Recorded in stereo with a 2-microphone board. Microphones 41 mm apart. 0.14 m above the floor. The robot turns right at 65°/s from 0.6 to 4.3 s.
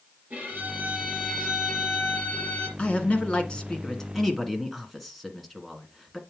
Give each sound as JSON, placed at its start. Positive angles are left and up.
{"t": 0.3, "sound": "a violin", "azimuth_deg": -50, "distance_m": 3.5}
{"t": 2.8, "sound": "a man speaking", "azimuth_deg": 85, "distance_m": 1.5}